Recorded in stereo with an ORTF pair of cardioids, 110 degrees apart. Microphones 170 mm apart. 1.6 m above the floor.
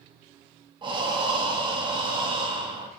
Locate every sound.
0.8 s breathing: 30° right, 0.7 m